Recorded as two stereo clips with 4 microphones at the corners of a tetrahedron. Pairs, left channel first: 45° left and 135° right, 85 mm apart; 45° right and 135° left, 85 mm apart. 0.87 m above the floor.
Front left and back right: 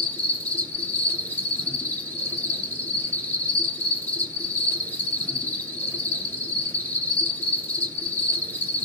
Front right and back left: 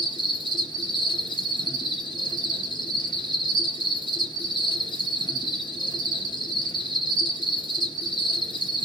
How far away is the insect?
About 1.6 m.